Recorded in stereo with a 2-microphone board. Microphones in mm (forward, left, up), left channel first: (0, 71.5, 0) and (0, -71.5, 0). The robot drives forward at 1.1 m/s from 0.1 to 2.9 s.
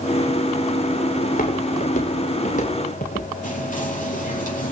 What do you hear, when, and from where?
1.2 s footsteps: 70° left (ahead or behind), 7.5 m
3.4 s whispering: 65° left (ahead or behind), 6.5 m